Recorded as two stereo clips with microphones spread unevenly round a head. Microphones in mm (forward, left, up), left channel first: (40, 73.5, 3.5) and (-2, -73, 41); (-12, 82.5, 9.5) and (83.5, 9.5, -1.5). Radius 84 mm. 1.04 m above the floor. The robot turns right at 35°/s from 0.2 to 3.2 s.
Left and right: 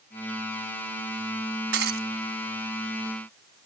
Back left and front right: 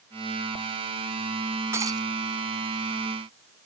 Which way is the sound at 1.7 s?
115° right.